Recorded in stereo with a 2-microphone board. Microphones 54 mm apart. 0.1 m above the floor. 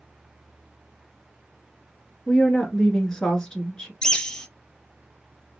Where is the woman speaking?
15° left (ahead or behind), 1.1 m.